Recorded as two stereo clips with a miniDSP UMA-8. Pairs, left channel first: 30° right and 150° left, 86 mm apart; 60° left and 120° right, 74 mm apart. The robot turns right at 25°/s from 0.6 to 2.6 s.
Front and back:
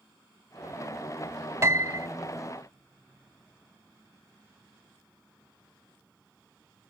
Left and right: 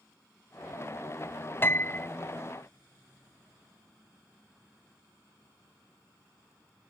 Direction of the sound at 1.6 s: 105° left.